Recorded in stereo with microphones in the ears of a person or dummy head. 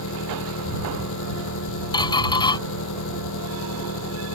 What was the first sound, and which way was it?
An engine running, 80° left.